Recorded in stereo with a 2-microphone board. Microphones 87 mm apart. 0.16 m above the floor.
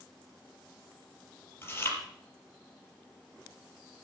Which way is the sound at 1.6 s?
25° left (ahead or behind).